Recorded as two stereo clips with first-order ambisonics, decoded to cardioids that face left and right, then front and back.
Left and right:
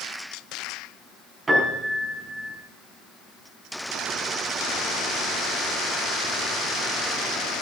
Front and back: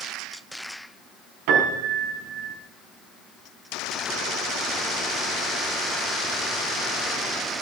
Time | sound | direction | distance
1.5 | a piano | 170° right | 5 m